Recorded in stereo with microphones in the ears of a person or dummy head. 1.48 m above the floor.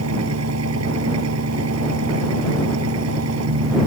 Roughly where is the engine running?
Right.